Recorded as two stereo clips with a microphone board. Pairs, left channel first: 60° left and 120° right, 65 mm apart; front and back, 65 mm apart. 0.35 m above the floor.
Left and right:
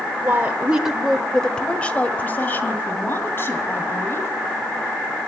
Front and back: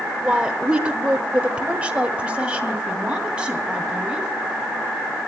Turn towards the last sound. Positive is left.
turn(degrees=110)